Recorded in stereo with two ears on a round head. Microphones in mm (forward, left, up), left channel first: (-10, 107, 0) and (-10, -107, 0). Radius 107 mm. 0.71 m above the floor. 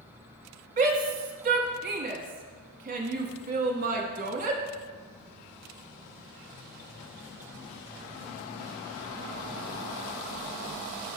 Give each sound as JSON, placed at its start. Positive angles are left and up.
{"t": 0.8, "sound": "a shout", "side_deg": -35, "distance_m": 1.0}